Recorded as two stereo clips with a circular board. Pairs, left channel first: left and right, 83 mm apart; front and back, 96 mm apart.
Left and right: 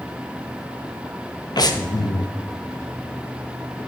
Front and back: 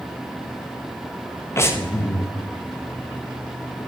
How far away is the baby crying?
No baby crying in this recording.